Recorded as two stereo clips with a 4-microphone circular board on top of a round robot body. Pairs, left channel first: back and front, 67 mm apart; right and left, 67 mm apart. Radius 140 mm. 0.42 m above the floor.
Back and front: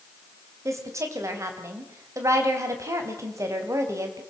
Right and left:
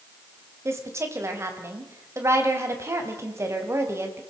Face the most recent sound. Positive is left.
turn(degrees=45)